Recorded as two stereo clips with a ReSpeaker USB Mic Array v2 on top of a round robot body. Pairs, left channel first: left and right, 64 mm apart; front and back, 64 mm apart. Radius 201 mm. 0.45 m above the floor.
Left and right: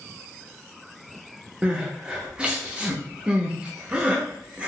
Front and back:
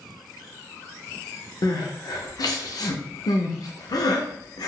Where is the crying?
15° right, 0.6 m.